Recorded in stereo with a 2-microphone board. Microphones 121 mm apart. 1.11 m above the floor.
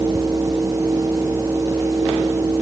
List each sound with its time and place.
Only background noise.